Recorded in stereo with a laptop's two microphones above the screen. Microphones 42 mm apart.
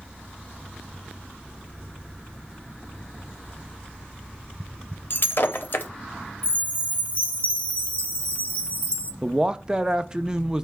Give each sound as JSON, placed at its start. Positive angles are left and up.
{"t": 5.1, "sound": "breaking glass", "side_deg": 55, "distance_m": 0.6}
{"t": 6.4, "sound": "a chime", "side_deg": 35, "distance_m": 0.7}
{"t": 9.2, "sound": "a man speaking", "side_deg": -20, "distance_m": 0.6}